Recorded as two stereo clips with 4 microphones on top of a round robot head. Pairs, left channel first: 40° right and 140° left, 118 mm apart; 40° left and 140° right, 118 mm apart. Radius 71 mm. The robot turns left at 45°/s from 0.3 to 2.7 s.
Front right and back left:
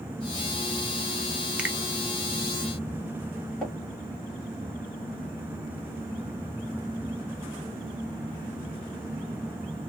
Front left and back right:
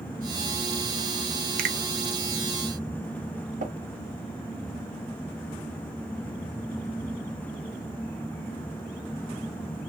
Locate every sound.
1.6 s a finger snap: 135° right, 0.7 m; by 1.8 s 145° right, 0.7 m
3.6 s tapping: 130° right, 2.0 m